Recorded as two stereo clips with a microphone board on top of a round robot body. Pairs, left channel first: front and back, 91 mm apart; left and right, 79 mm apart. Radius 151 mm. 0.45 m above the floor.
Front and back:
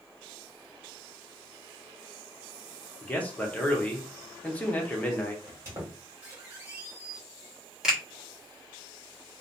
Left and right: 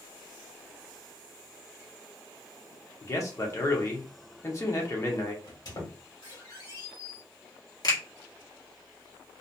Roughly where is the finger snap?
Left.